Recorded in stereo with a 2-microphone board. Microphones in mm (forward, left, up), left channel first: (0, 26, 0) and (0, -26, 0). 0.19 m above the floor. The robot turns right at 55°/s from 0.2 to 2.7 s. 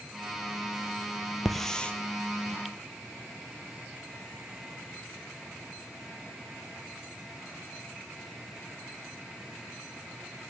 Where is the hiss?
Centre (ahead or behind), 1.0 m; by 1.9 s 25° left (ahead or behind), 1.0 m.